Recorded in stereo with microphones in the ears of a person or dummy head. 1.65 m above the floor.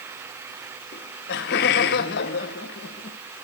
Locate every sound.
0.9 s laughter: 50° left (ahead or behind), 1.0 m